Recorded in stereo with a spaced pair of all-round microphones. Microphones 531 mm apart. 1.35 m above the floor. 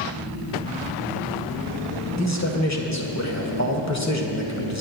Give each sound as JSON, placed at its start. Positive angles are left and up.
{"t": 2.2, "sound": "a man speaking", "side_deg": 30, "distance_m": 1.4}